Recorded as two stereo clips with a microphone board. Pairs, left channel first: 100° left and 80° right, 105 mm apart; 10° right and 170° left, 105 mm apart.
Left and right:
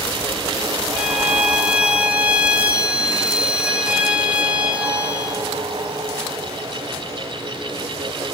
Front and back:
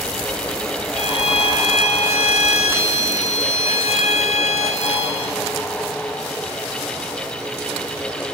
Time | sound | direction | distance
0.9 | a violin | straight ahead | 2.5 m